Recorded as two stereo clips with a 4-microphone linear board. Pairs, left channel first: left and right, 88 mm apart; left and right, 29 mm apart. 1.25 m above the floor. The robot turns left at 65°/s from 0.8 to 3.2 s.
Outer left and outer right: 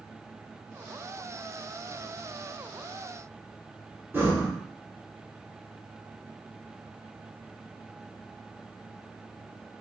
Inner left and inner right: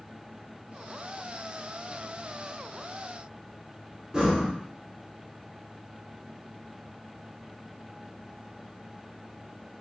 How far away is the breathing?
About 0.9 m.